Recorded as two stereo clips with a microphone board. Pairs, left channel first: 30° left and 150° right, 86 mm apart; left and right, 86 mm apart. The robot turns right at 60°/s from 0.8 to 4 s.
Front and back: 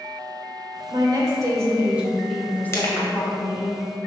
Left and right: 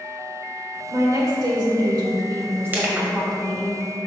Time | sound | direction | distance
0.9 | a woman speaking | 140° right | 1.7 m
2.7 | crushing | 25° right | 1.3 m